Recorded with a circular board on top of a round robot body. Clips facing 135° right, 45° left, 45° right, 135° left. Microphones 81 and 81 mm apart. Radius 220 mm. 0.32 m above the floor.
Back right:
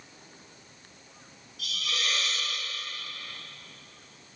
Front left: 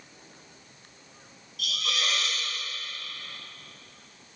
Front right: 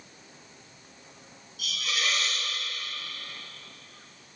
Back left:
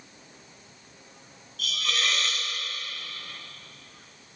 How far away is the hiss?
About 2 m.